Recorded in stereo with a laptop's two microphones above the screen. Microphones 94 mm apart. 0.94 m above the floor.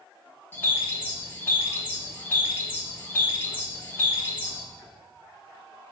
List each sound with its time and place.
0.5 s a bird: 20° left (ahead or behind), 0.6 m